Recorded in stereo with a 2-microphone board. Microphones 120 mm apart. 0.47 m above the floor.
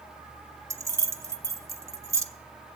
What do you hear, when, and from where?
0.7 s keys jangling: 25° right (ahead or behind), 0.6 m